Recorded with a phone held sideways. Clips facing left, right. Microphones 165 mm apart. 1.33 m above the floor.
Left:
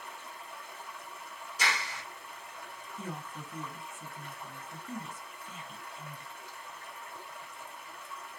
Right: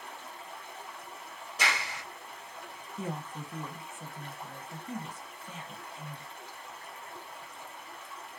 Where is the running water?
60° right (ahead or behind), 1.4 m.